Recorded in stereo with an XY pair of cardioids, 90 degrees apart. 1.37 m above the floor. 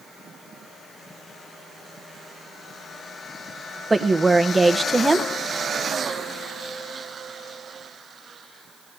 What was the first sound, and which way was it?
A woman speaking, 20° right.